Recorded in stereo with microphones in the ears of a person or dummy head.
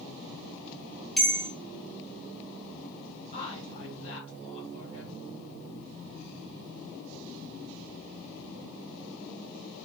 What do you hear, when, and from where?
1.2 s a bell: 5° right (ahead or behind), 0.6 m
3.3 s a woman speaking: 40° left (ahead or behind), 1.8 m